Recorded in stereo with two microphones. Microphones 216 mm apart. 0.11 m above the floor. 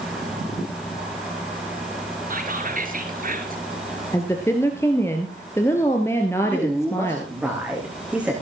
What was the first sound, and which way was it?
Whispering, 40° right (ahead or behind).